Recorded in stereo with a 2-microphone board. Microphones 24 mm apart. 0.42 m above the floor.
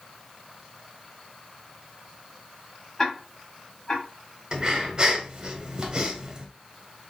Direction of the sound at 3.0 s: 25° left (ahead or behind).